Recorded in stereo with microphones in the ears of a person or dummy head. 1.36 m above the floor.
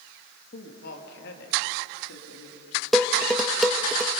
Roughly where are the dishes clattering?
Centre.